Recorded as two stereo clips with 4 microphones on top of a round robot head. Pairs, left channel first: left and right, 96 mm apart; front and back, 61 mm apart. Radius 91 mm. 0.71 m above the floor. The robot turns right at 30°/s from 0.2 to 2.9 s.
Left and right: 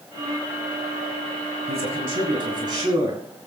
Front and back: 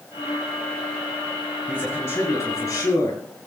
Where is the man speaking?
75° right, 6.5 m; by 3.2 s 35° right, 6.5 m.